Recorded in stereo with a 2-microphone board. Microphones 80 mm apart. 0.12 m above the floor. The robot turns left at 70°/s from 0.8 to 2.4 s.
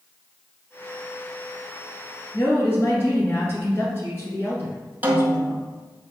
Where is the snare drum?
25° right (ahead or behind), 0.6 m.